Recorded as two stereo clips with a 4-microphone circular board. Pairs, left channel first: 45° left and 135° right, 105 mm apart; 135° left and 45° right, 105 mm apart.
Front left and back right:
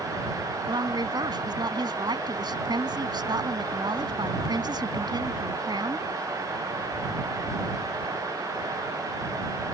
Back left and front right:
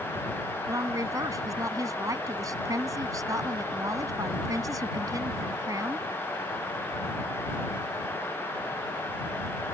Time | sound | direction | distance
0.7 | a woman speaking | 95° right | ?